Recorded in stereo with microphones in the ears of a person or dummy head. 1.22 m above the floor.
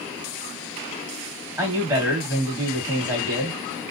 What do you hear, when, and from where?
1.6 s a man speaking: 10° right (ahead or behind), 1.8 m